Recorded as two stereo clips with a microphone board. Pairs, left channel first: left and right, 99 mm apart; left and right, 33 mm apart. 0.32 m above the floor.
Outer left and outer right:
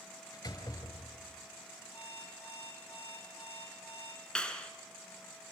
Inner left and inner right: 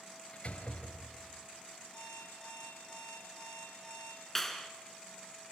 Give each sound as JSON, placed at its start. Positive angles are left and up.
{"t": 0.3, "sound": "a door slam", "side_deg": 40, "distance_m": 4.0}
{"t": 1.9, "sound": "an alarm clock", "side_deg": 25, "distance_m": 9.0}
{"t": 4.3, "sound": "a clap", "side_deg": 10, "distance_m": 2.5}